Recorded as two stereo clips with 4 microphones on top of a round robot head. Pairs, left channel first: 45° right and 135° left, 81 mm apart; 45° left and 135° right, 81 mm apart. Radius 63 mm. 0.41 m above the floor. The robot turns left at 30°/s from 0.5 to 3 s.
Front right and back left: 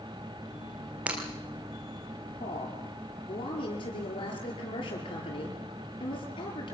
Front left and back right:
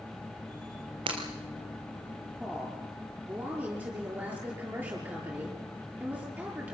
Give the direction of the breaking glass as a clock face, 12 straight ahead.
5 o'clock.